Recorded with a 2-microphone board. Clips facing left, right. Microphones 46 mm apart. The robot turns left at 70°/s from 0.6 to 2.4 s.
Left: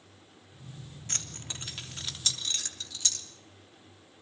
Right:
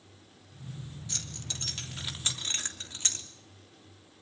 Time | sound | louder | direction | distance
1.1 | keys jangling | left 2 dB | 55° left (ahead or behind) | 3 m